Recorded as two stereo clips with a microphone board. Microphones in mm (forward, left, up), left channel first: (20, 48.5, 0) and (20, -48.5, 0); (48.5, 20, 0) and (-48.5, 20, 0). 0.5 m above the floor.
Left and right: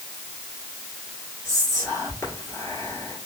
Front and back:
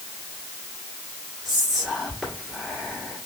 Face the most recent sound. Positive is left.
turn(degrees=95)